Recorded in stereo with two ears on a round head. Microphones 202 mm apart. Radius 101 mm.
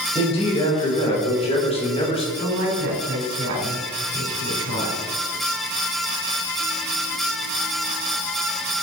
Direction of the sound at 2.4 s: 55° right (ahead or behind).